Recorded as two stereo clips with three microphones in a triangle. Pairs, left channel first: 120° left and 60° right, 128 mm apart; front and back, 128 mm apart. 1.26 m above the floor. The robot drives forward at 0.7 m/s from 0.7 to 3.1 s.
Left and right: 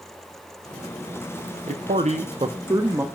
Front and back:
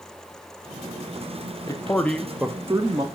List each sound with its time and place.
1.7 s a man speaking: 55° right, 0.8 m; by 3.1 s 130° right, 0.9 m